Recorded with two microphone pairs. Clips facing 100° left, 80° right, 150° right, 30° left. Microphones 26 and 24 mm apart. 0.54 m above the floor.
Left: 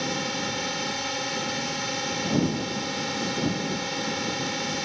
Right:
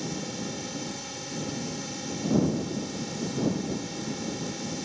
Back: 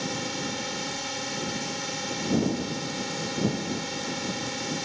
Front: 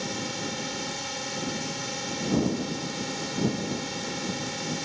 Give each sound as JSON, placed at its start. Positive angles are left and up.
{"t": 0.0, "sound": "a drone", "azimuth_deg": 130}